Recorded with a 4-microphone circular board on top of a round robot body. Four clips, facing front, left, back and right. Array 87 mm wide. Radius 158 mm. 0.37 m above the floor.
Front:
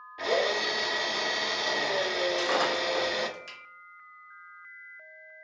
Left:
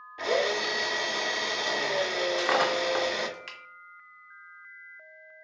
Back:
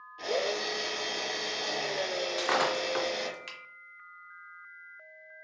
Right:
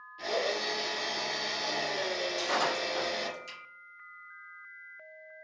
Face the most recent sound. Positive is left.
turn(degrees=105)